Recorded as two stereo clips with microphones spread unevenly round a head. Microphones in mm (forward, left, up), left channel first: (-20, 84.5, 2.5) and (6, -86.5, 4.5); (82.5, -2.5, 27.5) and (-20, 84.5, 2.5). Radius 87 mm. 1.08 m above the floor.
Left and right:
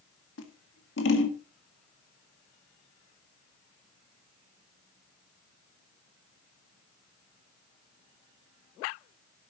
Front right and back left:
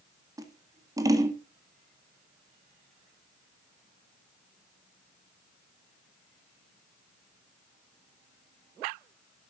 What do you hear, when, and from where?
0.4 s scissors: 75° left, 1.8 m